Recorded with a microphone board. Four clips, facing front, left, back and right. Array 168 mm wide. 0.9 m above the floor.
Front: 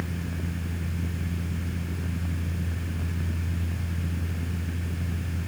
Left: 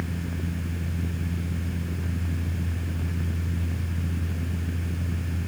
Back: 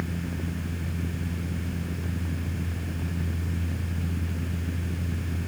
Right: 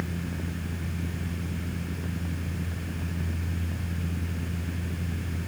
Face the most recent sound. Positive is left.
No sound to turn to.